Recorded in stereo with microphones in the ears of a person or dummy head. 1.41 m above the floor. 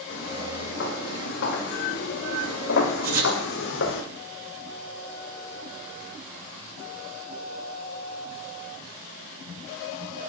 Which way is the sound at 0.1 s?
55° left (ahead or behind).